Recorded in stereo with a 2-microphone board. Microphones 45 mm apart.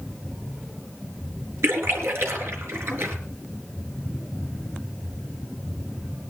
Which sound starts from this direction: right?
A splash, at 1.6 s.